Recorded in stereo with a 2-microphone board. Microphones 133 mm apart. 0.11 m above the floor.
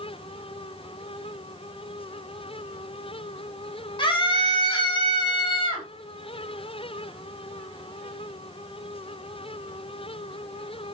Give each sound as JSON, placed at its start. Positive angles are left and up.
{"t": 4.0, "sound": "a scream", "side_deg": 40, "distance_m": 4.5}